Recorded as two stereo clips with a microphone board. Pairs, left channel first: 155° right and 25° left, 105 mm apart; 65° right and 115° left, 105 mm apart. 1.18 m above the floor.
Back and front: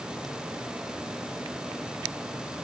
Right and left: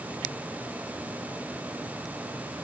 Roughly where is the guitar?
I don't hear a guitar.